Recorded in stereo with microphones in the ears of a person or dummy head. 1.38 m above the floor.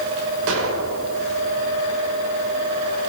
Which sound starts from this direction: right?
An explosion, at 0.5 s.